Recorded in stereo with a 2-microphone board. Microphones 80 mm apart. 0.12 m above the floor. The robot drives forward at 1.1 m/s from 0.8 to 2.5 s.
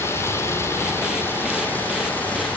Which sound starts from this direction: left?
Running water, at 0.0 s.